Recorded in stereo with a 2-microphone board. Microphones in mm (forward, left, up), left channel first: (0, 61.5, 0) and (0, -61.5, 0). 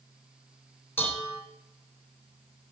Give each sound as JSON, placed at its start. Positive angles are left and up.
{"t": 1.0, "sound": "dishes clattering", "side_deg": 15, "distance_m": 1.1}